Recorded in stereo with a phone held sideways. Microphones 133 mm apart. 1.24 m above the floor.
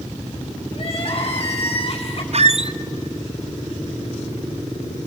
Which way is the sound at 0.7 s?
45° left (ahead or behind).